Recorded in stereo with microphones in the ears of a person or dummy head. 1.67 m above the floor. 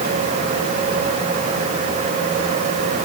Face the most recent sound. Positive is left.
No sound to turn to.